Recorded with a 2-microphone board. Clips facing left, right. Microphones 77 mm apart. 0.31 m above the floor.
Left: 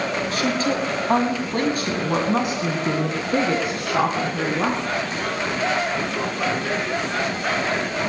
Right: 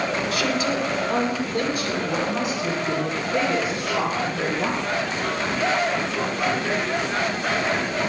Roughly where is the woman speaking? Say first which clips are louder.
Left 3 dB; left.